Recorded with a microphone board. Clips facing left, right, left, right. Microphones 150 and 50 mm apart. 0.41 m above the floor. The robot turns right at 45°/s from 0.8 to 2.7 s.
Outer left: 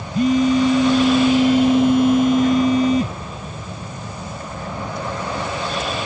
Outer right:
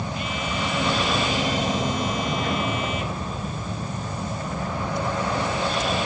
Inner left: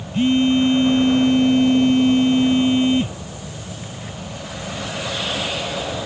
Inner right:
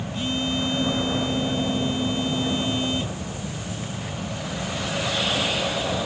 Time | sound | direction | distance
0.1 | a phone buzzing | 50° left | ?